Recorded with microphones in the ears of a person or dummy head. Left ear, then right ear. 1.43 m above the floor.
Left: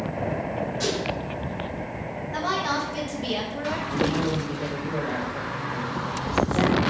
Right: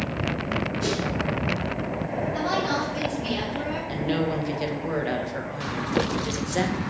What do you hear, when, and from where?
0.8 s a whoosh: 75° left (ahead or behind), 3 m
2.3 s a woman speaking: 55° left (ahead or behind), 2 m
3.9 s a woman speaking: 55° right (ahead or behind), 1.5 m